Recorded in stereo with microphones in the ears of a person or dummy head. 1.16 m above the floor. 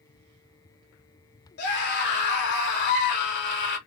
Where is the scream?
55° left (ahead or behind), 1.3 m.